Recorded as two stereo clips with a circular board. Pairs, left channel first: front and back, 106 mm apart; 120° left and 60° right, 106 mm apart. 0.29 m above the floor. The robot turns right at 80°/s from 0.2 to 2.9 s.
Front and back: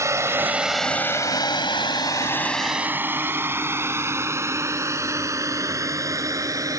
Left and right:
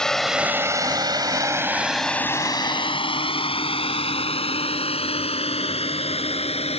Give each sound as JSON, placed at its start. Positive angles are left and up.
{"t": 0.0, "sound": "a drone", "azimuth_deg": -160}